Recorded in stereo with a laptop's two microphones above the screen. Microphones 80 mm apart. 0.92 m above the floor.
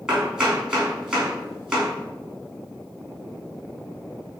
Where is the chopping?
10° right (ahead or behind), 3 m.